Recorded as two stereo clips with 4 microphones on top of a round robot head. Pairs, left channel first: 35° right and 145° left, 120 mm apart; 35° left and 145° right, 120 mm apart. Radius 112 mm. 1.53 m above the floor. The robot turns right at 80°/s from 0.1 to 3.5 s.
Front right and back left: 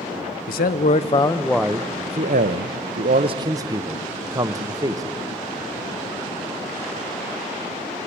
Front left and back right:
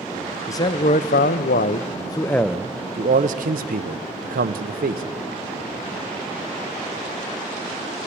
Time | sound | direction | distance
0.5 | a man speaking | 35° right | 0.6 m